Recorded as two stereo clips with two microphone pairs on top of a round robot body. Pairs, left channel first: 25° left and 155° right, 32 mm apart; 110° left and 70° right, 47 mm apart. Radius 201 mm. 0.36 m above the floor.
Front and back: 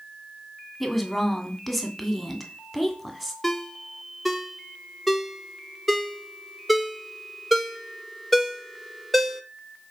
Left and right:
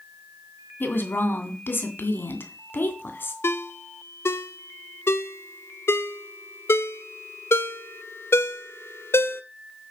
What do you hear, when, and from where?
0.8 s a woman speaking: 120° left, 2.5 m
3.4 s a ringtone: 120° left, 0.8 m